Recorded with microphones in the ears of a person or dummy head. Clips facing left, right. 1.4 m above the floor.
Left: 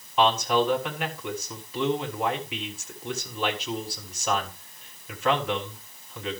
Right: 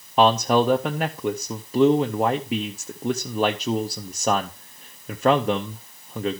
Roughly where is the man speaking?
Right.